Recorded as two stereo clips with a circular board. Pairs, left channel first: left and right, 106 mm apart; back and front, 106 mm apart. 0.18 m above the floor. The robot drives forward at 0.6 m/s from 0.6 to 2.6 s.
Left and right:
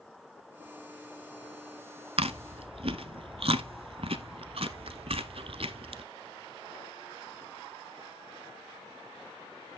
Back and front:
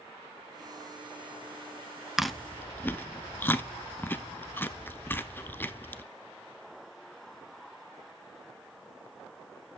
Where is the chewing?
85° right, 0.6 m; by 6.0 s 110° right, 0.6 m.